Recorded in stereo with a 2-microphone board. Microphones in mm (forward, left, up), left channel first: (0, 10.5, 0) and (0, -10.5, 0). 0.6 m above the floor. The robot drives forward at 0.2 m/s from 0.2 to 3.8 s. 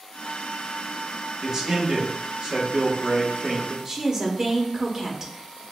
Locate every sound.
1.4 s a man speaking: 35° right (ahead or behind), 0.9 m
3.9 s a woman speaking: 25° right (ahead or behind), 0.8 m